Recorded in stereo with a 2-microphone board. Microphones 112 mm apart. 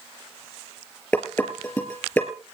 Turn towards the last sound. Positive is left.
turn(degrees=15)  # may be behind; listen again after turning